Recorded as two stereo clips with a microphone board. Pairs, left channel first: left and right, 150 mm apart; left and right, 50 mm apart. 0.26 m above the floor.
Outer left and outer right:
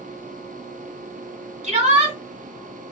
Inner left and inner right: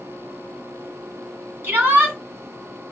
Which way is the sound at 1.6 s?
45° right (ahead or behind).